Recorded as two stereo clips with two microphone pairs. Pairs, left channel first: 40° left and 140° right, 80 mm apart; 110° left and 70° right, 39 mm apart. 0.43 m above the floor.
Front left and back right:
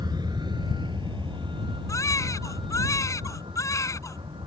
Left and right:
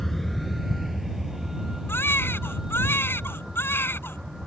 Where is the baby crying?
95° left.